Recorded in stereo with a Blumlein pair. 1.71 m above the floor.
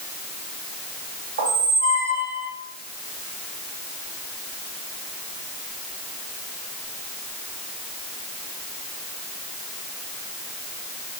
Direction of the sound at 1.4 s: 65° right.